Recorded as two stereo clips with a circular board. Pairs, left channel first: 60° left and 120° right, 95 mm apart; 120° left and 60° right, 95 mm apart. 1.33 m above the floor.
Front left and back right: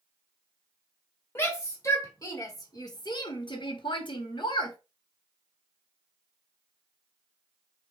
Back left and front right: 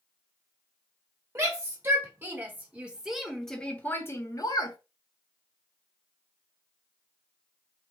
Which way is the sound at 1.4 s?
Straight ahead.